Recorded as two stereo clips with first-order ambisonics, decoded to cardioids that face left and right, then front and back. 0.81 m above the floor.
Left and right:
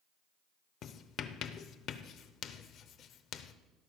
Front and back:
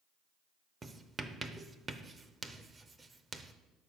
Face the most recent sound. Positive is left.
turn(degrees=110)